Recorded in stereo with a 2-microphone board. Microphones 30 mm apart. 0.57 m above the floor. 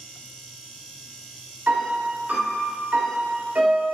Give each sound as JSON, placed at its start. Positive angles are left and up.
{"t": 1.7, "sound": "a piano", "side_deg": -75, "distance_m": 0.9}